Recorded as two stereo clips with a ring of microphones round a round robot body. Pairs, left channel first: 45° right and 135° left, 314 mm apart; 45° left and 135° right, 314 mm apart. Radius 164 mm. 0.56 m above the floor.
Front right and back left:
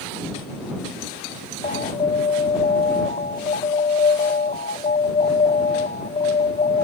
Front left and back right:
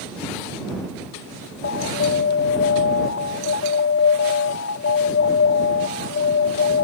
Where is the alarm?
15° left.